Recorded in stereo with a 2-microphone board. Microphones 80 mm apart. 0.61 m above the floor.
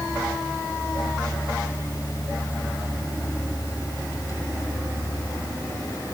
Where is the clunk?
I don't hear a clunk.